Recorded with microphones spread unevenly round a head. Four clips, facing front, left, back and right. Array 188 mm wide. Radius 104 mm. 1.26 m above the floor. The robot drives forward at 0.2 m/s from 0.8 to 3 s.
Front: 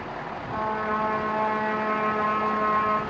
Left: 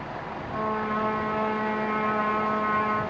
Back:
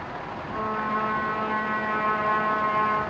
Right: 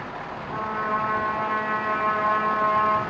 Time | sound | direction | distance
0.5 | a trumpet | 35° right | 0.8 m